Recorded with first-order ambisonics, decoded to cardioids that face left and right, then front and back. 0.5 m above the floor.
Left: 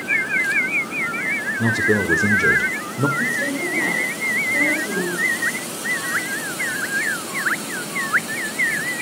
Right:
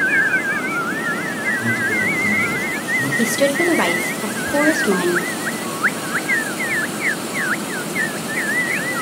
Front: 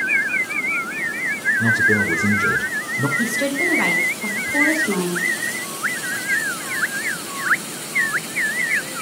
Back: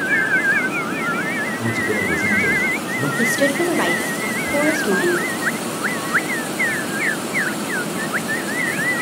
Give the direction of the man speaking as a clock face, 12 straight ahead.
9 o'clock.